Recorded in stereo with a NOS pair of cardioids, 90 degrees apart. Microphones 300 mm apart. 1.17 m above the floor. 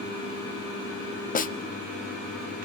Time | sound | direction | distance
1.4 | a snare drum | 25° left | 0.8 m